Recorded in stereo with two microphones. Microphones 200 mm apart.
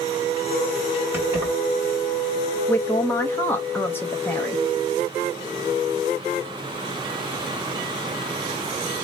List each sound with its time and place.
1.1 s keys jangling: 10° right (ahead or behind), 1.7 m
2.7 s a man speaking: 10° left (ahead or behind), 0.6 m